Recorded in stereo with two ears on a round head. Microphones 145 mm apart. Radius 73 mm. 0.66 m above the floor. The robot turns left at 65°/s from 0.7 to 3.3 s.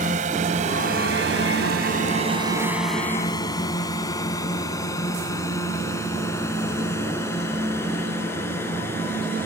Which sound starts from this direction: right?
A drone, at 0.0 s.